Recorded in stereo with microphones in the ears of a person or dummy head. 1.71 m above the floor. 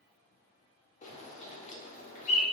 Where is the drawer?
No drawer in this recording.